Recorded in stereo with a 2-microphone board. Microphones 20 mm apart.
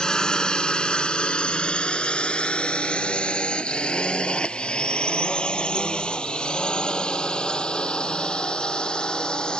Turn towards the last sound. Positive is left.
turn(degrees=55)  # may be behind; listen again after turning